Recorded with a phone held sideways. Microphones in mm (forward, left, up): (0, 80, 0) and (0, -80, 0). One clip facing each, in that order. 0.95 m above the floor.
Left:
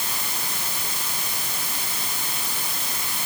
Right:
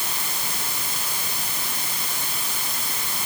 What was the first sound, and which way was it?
Only background noise.